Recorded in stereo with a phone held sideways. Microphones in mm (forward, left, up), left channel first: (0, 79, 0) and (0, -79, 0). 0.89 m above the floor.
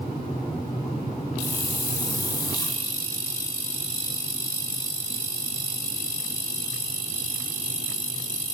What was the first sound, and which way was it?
A hiss, 25° left (ahead or behind).